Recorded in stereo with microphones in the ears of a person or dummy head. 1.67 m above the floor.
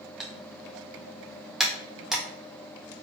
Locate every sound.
0.2 s typing on a keyboard: 5° left (ahead or behind), 0.8 m